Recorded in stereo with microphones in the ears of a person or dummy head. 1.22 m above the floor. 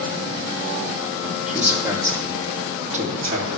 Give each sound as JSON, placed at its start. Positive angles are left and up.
{"t": 1.5, "sound": "a man speaking", "side_deg": 0, "distance_m": 2.0}